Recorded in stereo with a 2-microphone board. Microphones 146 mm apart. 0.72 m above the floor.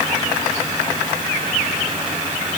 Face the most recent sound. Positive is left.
No sound to turn to.